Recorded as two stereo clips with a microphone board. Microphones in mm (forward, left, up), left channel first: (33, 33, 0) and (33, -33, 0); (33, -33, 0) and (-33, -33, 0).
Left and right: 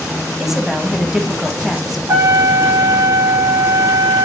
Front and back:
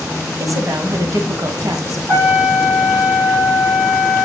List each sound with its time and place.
0.4 s a woman speaking: 175° right, 1.7 m
2.1 s a trumpet: 115° right, 5.5 m